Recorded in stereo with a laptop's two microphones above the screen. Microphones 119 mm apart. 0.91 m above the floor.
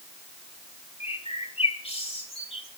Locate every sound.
1.0 s a bird: 60° left (ahead or behind), 3 m